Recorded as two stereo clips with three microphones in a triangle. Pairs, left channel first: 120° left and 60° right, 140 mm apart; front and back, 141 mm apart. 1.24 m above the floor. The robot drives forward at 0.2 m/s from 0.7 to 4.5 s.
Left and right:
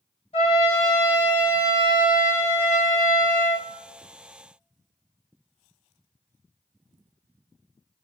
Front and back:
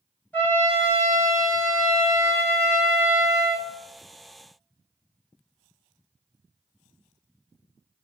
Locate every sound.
0.3 s a trumpet: 80° left, 0.7 m; by 3.6 s 125° left, 0.9 m